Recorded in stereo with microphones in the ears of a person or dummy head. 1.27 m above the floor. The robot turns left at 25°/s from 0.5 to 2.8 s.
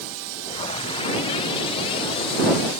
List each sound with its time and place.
Only background noise.